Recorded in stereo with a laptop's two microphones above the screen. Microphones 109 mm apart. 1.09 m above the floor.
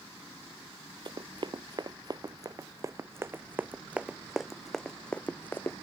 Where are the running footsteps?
50° right (ahead or behind); by 5.8 s 25° left (ahead or behind).